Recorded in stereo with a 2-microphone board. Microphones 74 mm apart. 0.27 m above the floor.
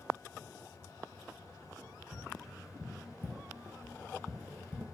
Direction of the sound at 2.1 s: Centre (ahead or behind).